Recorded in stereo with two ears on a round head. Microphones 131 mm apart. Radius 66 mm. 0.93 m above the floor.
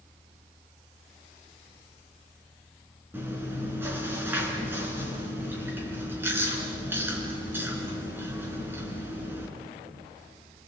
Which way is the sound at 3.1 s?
15° right (ahead or behind).